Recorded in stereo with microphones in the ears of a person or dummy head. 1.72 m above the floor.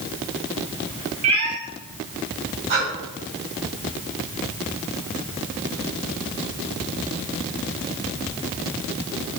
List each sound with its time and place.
1.2 s a cat meowing: 40° right (ahead or behind), 3 m
2.7 s breathing: 60° right (ahead or behind), 3.5 m